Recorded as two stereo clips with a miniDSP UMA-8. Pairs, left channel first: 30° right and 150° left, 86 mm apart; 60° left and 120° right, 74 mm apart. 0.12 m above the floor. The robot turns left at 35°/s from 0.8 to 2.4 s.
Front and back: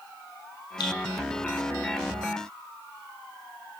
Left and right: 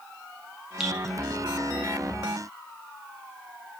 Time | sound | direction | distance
0.8 | dripping | 40° right | 1.2 m